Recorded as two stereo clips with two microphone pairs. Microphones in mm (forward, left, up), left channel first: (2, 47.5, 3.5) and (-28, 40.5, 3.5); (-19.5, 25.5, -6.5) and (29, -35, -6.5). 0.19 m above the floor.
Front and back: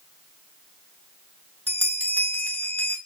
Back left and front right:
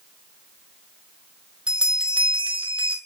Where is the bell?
25° left, 1.4 m.